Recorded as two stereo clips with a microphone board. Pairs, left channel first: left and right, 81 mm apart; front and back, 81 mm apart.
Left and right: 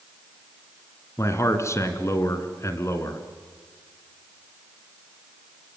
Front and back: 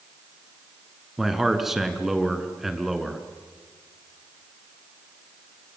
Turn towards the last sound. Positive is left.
turn(degrees=95)